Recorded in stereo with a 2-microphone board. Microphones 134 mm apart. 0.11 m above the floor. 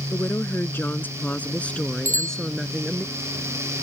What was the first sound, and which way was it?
A woman speaking, 20° left (ahead or behind).